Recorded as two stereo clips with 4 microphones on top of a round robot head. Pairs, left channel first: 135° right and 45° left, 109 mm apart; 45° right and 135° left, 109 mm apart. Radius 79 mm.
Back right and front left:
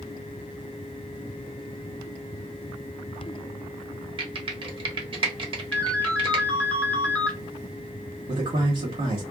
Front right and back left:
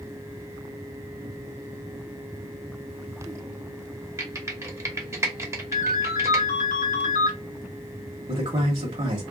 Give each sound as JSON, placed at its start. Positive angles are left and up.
{"t": 4.2, "sound": "typing on a keyboard", "azimuth_deg": 75, "distance_m": 1.0}
{"t": 5.7, "sound": "a ringtone", "azimuth_deg": -55, "distance_m": 0.7}
{"t": 8.3, "sound": "a man speaking", "azimuth_deg": 85, "distance_m": 1.2}